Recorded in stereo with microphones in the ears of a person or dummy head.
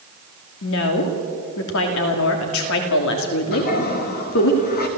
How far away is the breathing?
No breathing in this recording.